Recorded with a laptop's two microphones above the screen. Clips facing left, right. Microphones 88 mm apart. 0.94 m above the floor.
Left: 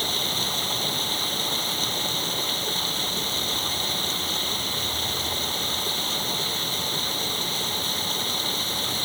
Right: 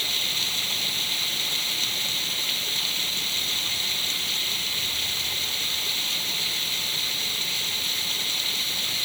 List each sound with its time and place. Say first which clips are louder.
0.0 s running water: left 5 dB; 35° left (ahead or behind)